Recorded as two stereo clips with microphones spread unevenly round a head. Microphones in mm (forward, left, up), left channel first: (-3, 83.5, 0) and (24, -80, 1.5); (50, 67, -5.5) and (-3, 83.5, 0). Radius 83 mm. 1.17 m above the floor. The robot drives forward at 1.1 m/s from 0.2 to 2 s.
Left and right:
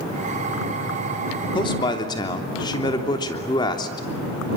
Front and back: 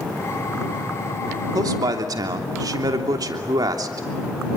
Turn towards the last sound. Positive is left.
turn(degrees=165)